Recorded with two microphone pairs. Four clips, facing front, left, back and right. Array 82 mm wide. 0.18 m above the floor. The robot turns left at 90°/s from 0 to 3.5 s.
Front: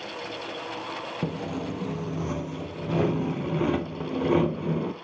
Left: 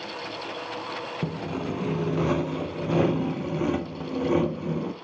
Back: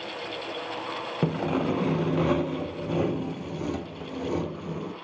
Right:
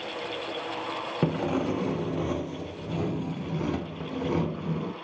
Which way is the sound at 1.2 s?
135° right.